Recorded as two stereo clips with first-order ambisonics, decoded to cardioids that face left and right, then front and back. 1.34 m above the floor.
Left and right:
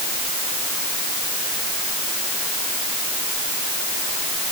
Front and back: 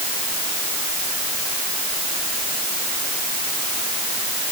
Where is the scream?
No scream in this recording.